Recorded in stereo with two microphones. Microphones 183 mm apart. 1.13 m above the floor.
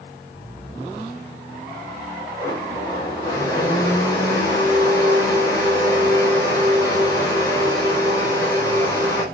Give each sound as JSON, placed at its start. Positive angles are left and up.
{"t": 2.4, "sound": "a blender", "side_deg": 20, "distance_m": 4.5}